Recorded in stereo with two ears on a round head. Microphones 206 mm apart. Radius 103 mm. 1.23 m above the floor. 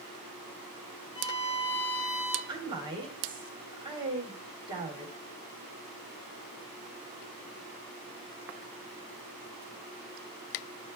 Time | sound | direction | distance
1.1 | a violin | 15° left (ahead or behind) | 4.5 m
2.5 | a woman speaking | 20° right (ahead or behind) | 3.5 m